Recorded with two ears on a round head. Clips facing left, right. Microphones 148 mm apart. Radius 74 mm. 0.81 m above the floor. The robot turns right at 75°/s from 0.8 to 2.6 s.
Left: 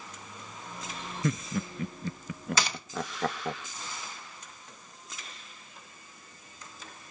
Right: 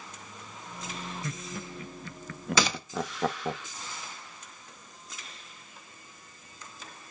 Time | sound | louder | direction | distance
1.2 | laughter | left 7 dB | 55° left (ahead or behind) | 0.6 m
2.6 | a gunshot | right 6 dB | 65° right (ahead or behind) | 0.7 m